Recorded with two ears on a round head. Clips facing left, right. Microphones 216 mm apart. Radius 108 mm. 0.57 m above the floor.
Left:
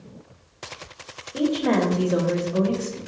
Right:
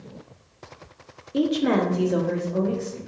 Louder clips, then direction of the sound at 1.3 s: Even; 30° right (ahead or behind).